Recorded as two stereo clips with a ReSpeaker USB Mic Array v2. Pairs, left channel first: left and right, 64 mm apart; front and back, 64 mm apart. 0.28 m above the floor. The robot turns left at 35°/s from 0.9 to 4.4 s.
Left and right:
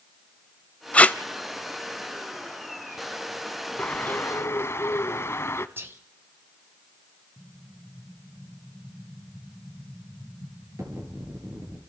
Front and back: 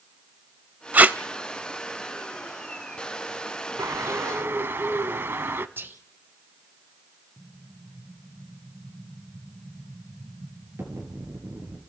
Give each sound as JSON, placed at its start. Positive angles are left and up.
{"t": 0.9, "sound": "tape being pulled", "azimuth_deg": 140, "distance_m": 0.5}
{"t": 3.8, "sound": "a bird", "azimuth_deg": 155, "distance_m": 0.9}
{"t": 5.8, "sound": "whispering", "azimuth_deg": -130, "distance_m": 1.4}
{"t": 7.4, "sound": "an explosion", "azimuth_deg": -130, "distance_m": 4.5}